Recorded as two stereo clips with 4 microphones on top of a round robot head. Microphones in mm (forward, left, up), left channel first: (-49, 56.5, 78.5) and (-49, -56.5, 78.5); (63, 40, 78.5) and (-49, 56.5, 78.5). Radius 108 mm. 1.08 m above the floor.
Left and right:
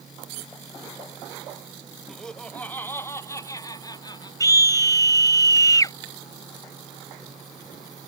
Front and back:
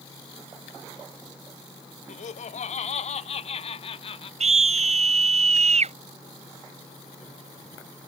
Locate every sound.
2.1 s laughter: straight ahead; by 4.3 s 30° left
4.4 s a scream: 150° left